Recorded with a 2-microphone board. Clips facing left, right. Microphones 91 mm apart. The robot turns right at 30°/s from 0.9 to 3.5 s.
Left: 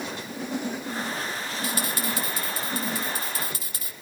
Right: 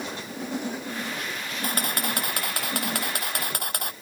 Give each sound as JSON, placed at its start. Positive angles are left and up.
{"t": 1.6, "sound": "a camera shutter", "azimuth_deg": -130}